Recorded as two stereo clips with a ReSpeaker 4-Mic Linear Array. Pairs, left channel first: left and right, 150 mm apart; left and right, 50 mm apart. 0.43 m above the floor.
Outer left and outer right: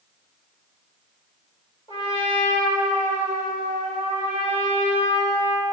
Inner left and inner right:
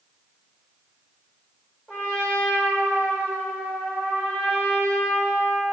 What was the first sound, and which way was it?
A trumpet, 40° left (ahead or behind).